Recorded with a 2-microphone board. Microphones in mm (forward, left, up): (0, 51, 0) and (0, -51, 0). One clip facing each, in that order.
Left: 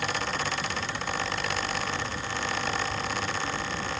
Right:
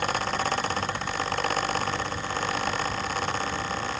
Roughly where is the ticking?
No ticking in this recording.